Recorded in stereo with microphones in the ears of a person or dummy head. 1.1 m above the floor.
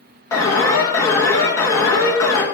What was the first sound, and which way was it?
An alarm, 15° left (ahead or behind).